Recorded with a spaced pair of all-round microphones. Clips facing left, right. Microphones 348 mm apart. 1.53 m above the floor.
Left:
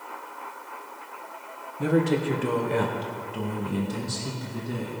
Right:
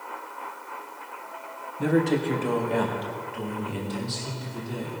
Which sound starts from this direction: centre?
A man speaking, at 1.8 s.